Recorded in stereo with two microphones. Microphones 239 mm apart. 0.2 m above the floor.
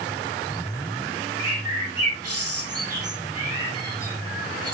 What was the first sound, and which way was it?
A bird, 85° right.